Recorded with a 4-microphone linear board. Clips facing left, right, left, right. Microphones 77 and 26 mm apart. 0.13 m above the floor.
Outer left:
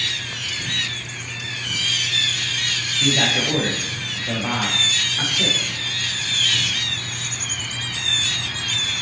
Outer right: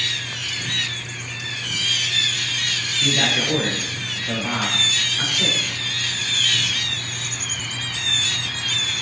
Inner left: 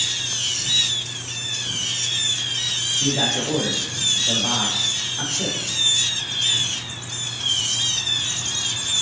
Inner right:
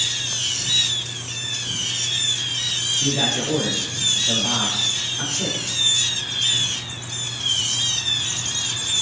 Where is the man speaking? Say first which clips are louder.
Outer left 1 dB, even; 25° left (ahead or behind), 6 m.